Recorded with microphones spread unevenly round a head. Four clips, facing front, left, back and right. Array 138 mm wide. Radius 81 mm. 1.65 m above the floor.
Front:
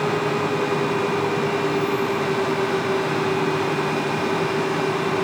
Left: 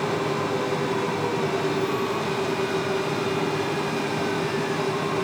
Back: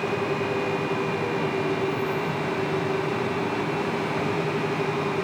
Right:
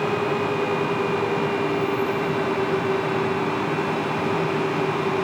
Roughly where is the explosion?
No explosion in this recording.